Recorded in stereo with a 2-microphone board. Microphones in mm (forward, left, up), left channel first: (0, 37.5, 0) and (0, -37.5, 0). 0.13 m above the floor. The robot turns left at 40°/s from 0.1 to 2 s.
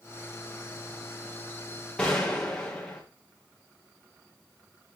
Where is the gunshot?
15° left (ahead or behind), 5 m.